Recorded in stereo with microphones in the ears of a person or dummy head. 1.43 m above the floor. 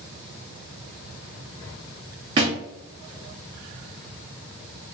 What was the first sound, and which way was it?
A thud, 15° right (ahead or behind).